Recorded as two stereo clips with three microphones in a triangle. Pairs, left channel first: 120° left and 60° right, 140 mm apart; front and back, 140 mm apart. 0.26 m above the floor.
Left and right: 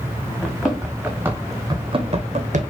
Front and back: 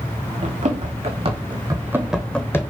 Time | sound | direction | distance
0.4 | running footsteps | 155° right | 1.0 m